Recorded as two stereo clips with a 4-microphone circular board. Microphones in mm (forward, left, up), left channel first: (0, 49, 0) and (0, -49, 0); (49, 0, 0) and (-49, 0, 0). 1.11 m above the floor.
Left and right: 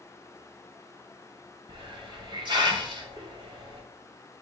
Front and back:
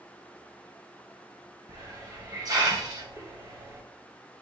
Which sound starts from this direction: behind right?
A hiss, at 1.7 s.